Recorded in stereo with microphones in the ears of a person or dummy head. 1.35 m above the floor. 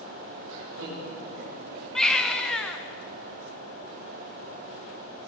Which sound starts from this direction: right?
Laughter, at 0.5 s.